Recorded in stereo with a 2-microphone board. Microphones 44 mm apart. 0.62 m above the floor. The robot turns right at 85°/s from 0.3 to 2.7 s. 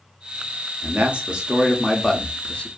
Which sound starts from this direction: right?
A man speaking, at 0.8 s.